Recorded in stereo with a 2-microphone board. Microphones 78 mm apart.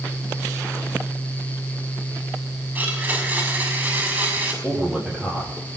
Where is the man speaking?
15° right (ahead or behind), 5.5 m.